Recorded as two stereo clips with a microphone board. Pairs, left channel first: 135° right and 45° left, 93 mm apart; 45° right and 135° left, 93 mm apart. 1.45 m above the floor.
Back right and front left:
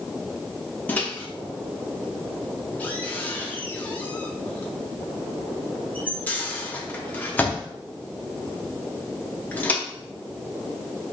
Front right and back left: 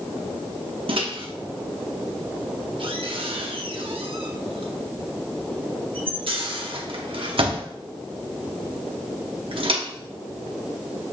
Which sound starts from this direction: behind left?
A microwave, at 0.9 s.